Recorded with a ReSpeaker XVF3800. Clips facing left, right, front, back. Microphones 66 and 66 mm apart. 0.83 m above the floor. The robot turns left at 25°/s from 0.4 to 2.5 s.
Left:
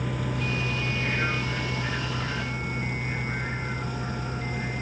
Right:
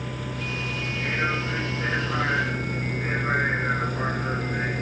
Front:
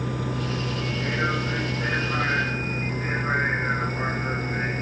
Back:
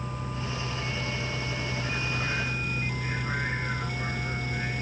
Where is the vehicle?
Straight ahead; by 4.8 s 50° right.